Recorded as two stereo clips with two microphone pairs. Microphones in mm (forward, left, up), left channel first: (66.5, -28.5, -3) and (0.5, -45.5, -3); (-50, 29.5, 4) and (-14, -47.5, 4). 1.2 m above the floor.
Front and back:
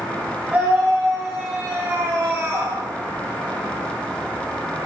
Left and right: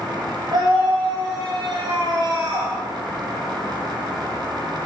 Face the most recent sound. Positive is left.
turn(degrees=-110)